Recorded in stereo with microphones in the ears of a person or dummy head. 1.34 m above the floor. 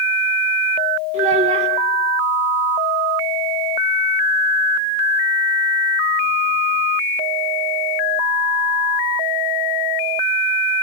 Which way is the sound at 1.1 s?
40° right (ahead or behind).